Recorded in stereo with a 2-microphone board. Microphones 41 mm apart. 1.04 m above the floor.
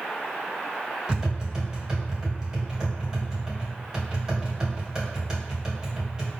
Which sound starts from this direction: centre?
Tapping, at 1.1 s.